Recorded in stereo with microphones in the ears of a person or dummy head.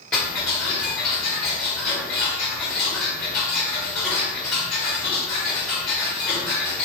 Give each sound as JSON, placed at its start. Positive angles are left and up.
{"t": 0.1, "sound": "ticking", "side_deg": 5, "distance_m": 1.3}